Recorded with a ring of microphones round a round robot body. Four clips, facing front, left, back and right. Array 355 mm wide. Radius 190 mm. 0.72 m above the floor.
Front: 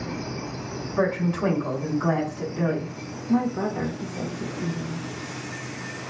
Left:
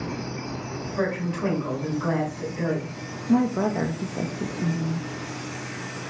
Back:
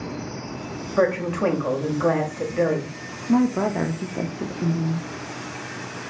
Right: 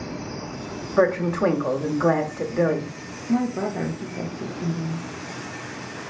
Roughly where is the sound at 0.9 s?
Behind right.